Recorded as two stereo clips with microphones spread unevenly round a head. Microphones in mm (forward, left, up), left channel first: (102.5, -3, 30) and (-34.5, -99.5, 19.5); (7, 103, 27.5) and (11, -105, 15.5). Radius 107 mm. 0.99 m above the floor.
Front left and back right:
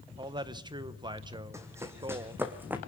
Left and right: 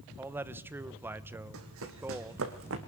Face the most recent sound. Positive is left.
turn(degrees=-65)